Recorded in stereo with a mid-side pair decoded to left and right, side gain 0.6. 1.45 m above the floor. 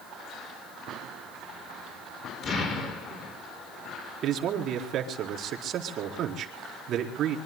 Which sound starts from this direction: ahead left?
An explosion, at 2.4 s.